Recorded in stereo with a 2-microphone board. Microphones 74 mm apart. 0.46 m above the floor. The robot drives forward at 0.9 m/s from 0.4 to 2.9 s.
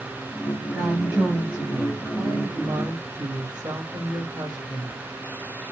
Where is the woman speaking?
30° right (ahead or behind), 3.5 m; by 5.0 s 50° right (ahead or behind), 2 m.